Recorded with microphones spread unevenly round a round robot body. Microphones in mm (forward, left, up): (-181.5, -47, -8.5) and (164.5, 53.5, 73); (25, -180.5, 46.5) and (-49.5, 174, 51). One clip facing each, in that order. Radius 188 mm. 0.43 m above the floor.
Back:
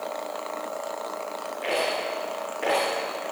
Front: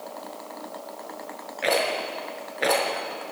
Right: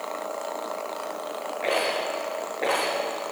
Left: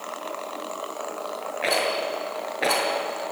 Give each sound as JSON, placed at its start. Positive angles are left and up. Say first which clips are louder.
{"t": 1.6, "sound": "a rattle", "louder": "front 2 dB, even", "azimuth_deg": 45, "distance_m": 6.0}